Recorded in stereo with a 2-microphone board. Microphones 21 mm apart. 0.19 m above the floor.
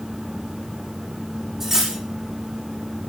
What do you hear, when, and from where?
1.6 s cutlery clinking: 20° right (ahead or behind), 5.5 m